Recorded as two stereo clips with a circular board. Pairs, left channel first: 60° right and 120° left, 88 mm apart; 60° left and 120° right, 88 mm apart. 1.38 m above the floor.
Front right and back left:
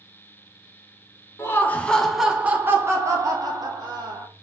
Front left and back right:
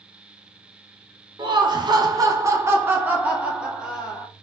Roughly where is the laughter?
Behind right.